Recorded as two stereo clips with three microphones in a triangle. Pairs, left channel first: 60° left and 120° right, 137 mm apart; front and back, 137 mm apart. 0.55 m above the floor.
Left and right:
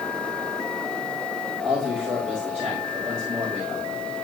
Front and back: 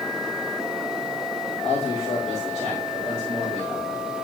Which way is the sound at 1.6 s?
45° right.